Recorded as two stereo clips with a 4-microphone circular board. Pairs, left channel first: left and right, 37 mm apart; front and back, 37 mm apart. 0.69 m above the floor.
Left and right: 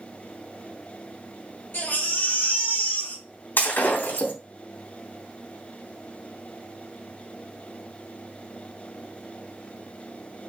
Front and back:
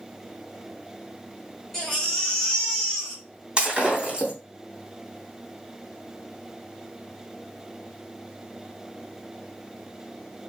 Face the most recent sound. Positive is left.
turn(degrees=110)